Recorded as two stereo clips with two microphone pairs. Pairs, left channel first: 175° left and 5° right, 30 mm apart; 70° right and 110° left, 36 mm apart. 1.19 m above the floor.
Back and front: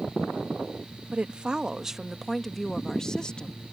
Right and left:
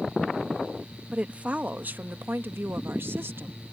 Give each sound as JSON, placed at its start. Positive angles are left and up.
{"t": 1.1, "sound": "a woman speaking", "azimuth_deg": 50}